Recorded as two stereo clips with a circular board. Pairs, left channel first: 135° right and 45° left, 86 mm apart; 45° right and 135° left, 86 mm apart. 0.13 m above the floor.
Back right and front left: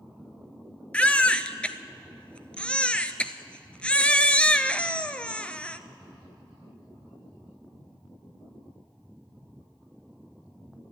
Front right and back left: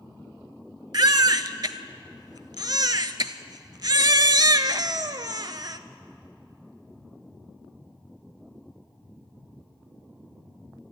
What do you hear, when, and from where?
0.9 s a baby crying: 150° left, 0.5 m